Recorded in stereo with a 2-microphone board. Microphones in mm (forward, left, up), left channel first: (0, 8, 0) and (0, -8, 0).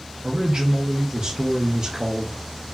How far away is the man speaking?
About 0.6 m.